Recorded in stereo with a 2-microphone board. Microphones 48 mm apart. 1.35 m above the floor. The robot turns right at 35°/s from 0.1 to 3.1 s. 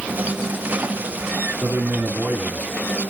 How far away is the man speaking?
About 3 m.